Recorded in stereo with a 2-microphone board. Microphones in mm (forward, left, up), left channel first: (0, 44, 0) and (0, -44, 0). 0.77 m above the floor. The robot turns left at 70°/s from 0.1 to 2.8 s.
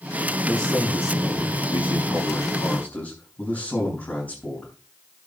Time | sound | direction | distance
0.5 | a man speaking | 175° right | 6 m